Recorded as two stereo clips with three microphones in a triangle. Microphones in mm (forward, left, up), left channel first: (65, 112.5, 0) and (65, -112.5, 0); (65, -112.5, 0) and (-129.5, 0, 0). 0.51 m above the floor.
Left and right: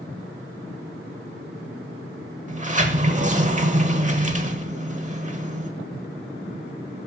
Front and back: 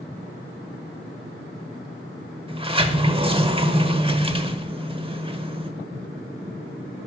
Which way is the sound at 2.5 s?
145° right.